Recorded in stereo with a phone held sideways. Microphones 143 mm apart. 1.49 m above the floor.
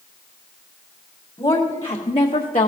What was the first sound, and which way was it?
A woman speaking, 30° left (ahead or behind).